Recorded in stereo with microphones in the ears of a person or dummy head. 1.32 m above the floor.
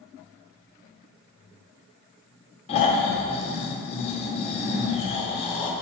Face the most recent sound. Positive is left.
turn(degrees=30)  # may be behind; listen again after turning